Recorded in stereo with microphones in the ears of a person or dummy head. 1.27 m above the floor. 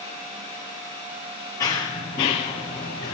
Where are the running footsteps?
15° left (ahead or behind), 1.3 m.